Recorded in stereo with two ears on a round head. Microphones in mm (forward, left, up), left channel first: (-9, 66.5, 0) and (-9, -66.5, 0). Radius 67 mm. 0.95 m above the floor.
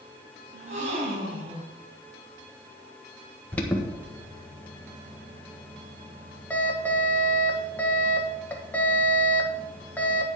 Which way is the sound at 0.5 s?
50° right (ahead or behind).